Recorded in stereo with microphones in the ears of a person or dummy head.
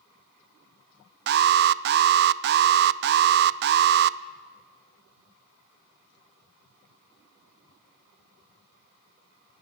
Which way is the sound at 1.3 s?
55° right (ahead or behind).